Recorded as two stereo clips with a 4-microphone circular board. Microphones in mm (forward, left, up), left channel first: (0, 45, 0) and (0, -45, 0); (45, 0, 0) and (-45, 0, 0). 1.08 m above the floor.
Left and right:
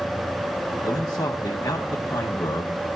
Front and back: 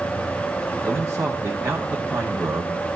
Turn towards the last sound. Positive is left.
turn(degrees=120)